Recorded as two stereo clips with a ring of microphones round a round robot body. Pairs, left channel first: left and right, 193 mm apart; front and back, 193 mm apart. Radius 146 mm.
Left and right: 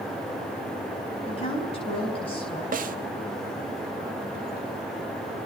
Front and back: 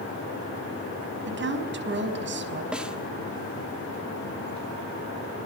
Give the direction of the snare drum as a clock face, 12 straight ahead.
3 o'clock.